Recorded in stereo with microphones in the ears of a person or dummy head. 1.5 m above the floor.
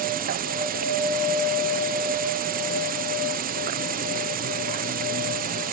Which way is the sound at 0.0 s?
45° right (ahead or behind).